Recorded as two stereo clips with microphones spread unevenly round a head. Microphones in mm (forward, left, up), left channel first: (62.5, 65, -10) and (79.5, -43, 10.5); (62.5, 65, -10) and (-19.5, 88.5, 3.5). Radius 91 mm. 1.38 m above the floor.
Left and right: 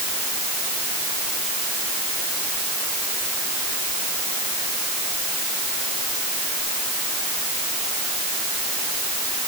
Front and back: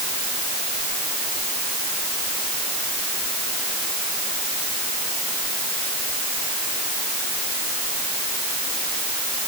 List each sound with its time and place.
Only background noise.